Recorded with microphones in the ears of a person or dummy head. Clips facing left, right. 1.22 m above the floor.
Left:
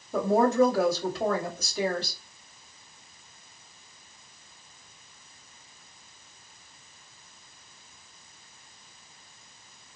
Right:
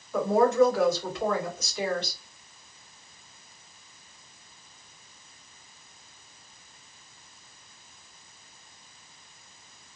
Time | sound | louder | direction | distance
0.1 | a woman speaking | right 1 dB | 25° left (ahead or behind) | 1.2 m